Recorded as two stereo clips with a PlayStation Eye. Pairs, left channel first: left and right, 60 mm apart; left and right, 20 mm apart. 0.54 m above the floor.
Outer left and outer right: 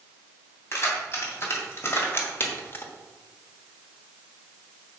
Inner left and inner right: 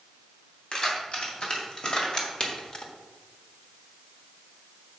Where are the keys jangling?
45° left (ahead or behind), 2.5 m; by 2.9 s 35° left (ahead or behind), 1.0 m.